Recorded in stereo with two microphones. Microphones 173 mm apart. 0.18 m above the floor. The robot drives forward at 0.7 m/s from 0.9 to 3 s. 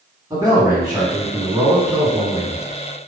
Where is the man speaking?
20° right (ahead or behind), 1.6 m; by 2.6 s 15° right (ahead or behind), 2.5 m.